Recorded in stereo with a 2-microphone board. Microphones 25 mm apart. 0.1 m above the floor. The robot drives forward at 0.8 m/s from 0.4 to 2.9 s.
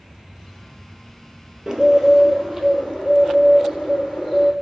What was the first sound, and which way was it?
A bird, 25° right (ahead or behind).